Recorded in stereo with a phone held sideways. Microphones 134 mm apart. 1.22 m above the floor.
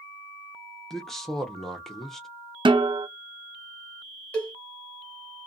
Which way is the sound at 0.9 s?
Centre (ahead or behind).